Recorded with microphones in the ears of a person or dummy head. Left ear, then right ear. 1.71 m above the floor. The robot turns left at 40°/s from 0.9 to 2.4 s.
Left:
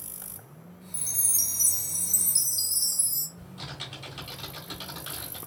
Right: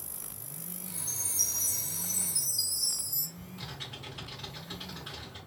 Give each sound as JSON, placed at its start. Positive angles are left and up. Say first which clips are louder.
{"t": 0.9, "sound": "a chime", "louder": "left 2 dB", "azimuth_deg": 85, "distance_m": 0.7}
{"t": 3.4, "sound": "typing on a keyboard", "louder": "left 3 dB", "side_deg": 30, "distance_m": 1.5}